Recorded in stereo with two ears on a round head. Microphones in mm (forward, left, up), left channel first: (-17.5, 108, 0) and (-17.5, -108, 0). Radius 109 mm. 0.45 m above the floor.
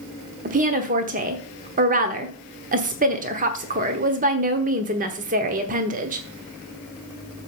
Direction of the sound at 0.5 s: 35° right (ahead or behind).